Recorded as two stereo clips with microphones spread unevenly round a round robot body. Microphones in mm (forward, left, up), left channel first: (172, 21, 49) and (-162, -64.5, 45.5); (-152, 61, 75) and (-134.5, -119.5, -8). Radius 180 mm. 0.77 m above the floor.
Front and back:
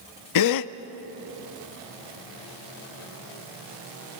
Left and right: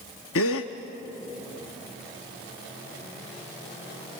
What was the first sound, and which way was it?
A gasp, 55° left.